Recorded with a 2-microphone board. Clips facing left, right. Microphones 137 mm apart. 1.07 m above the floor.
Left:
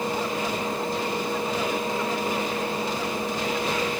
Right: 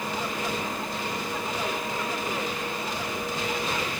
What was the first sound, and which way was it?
Only background noise.